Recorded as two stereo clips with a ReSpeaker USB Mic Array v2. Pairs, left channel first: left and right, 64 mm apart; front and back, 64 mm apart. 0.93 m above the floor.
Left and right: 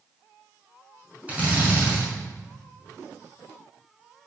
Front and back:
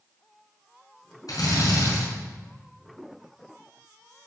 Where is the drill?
20° right, 5 m.